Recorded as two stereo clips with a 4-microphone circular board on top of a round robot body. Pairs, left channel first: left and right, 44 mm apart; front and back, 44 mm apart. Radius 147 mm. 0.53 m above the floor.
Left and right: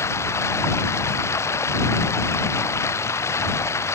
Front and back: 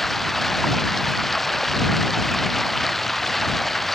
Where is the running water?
85° left.